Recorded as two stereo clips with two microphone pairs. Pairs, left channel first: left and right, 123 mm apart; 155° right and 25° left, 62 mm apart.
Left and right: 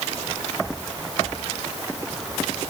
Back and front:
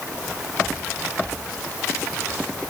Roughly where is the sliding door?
No sliding door in this recording.